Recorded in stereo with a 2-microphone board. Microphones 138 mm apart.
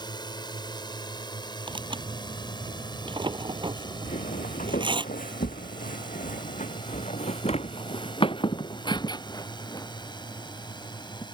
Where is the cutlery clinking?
I don't hear cutlery clinking.